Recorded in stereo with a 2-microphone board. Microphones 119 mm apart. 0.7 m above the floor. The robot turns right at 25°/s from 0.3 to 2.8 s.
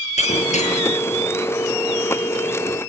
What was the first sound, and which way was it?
Breaking glass, 75° left (ahead or behind).